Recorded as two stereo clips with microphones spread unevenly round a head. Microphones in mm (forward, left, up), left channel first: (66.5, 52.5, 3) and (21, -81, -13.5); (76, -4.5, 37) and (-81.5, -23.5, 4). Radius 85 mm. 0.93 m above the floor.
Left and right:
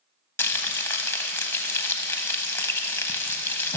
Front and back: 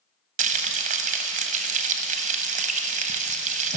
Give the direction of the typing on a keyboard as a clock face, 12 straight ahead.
No typing on a keyboard in this recording.